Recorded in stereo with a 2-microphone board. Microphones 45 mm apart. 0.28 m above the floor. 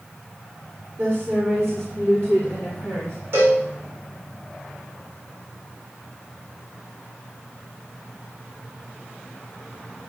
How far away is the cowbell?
About 6 m.